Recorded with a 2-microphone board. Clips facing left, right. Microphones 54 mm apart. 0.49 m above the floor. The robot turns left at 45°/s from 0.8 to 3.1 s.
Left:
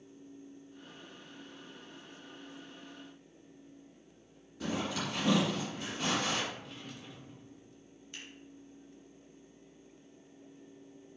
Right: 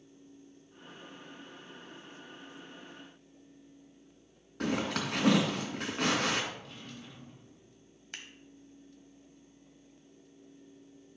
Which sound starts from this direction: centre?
A drawer, at 6.5 s.